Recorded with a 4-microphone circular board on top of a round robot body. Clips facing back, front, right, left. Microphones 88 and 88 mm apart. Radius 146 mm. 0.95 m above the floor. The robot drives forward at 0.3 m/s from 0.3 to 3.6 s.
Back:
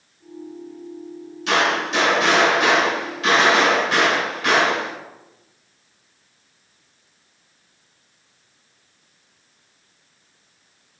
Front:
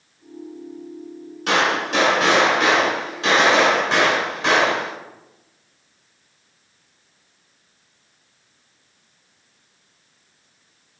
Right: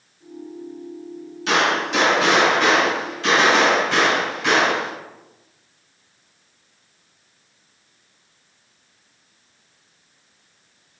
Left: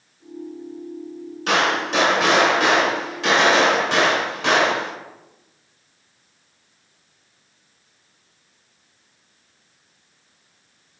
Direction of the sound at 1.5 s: 45° left.